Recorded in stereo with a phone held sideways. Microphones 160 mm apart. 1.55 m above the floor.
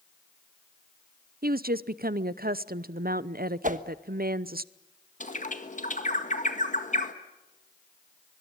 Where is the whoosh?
55° right (ahead or behind), 1.2 m.